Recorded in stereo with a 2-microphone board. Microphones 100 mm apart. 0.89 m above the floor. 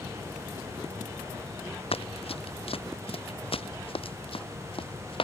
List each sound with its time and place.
1.9 s running footsteps: 80° left; by 5.2 s 65° left (ahead or behind)